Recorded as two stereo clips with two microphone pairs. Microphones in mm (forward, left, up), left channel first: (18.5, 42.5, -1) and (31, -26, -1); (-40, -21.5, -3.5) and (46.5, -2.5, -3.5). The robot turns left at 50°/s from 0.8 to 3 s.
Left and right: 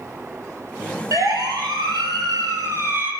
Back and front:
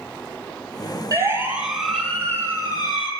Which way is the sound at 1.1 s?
35° right.